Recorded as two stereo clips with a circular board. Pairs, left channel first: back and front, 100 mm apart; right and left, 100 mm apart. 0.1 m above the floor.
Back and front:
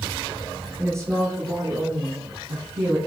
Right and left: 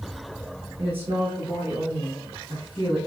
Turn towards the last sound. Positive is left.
turn(degrees=15)